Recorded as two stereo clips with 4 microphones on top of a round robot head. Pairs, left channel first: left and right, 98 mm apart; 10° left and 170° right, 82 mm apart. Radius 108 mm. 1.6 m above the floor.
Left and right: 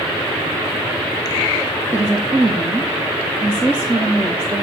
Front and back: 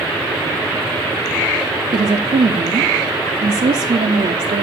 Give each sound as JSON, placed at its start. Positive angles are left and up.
{"t": 1.9, "sound": "a woman speaking", "azimuth_deg": -160, "distance_m": 0.7}